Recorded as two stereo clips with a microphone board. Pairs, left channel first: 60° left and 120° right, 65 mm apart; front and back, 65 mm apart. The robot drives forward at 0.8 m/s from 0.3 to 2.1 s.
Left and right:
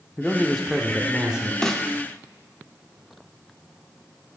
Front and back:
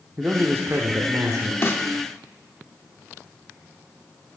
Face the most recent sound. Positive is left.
turn(degrees=-90)